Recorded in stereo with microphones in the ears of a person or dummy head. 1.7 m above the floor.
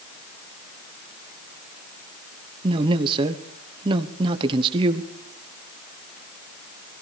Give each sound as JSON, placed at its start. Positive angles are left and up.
{"t": 2.6, "sound": "a man speaking", "side_deg": -25, "distance_m": 1.0}